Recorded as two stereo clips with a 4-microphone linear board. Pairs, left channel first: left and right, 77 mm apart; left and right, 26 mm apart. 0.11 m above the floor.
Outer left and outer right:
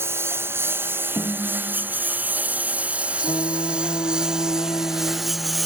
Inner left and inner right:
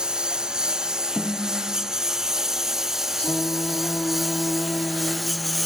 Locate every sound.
0.0 s a lawn mower: 30° right (ahead or behind); by 5.7 s centre (ahead or behind)
1.2 s a snare drum: 35° left (ahead or behind)
3.2 s singing: 65° left (ahead or behind)